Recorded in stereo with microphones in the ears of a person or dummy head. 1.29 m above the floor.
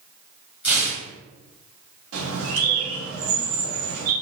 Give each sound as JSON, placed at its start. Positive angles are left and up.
{"t": 0.6, "sound": "tearing paper", "side_deg": -10, "distance_m": 1.4}
{"t": 2.1, "sound": "a bird", "side_deg": -80, "distance_m": 1.7}